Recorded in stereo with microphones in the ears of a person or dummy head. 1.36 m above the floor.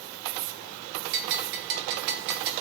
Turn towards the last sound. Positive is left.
turn(degrees=-60)  # may be behind; listen again after turning